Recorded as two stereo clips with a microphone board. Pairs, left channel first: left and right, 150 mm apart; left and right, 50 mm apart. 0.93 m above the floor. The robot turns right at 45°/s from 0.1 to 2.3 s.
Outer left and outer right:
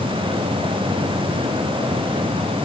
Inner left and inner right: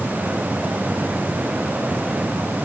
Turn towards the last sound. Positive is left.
No sound to turn to.